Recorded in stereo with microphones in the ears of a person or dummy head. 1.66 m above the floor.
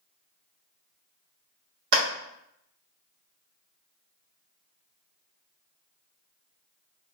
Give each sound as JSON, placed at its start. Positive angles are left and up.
{"t": 1.9, "sound": "a clap", "side_deg": -70, "distance_m": 2.0}